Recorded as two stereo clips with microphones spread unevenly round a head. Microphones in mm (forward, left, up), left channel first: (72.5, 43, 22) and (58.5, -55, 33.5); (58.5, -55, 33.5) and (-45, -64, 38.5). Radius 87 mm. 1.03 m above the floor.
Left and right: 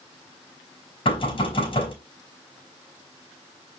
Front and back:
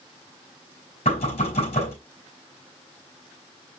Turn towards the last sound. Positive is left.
turn(degrees=50)